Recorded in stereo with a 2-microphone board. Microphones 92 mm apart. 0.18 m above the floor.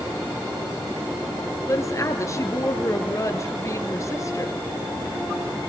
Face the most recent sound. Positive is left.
turn(degrees=35)  # may be behind; listen again after turning